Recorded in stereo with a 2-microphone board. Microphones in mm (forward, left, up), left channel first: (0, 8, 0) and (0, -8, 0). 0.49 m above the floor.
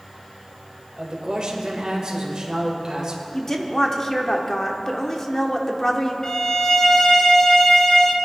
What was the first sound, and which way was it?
A man speaking, 55° right (ahead or behind).